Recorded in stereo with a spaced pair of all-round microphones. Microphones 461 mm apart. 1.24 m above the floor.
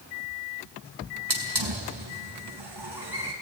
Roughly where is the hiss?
Right.